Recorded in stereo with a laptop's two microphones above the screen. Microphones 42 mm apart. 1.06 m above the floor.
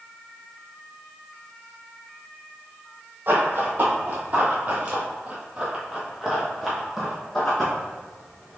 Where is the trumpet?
I don't hear a trumpet.